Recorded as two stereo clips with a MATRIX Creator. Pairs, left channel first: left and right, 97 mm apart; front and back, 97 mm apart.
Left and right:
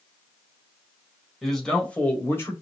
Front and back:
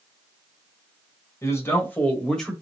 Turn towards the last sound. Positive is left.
turn(degrees=80)